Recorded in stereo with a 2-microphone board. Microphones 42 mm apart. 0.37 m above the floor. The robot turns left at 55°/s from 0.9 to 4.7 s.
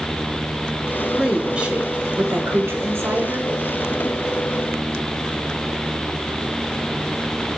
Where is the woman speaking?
5° right, 4 m; by 3.5 s 135° right, 4 m.